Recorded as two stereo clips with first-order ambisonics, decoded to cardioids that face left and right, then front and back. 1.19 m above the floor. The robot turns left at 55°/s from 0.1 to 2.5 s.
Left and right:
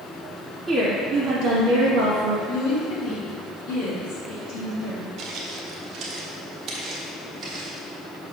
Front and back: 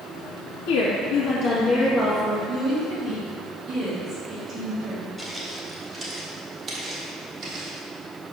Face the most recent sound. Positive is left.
turn(degrees=-150)